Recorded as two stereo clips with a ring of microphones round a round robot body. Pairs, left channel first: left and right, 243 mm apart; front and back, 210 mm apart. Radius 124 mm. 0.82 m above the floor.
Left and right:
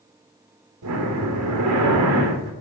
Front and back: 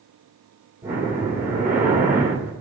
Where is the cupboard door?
I don't hear a cupboard door.